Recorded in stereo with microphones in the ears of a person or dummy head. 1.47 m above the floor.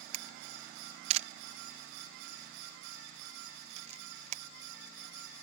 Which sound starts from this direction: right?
A camera shutter, at 0.1 s.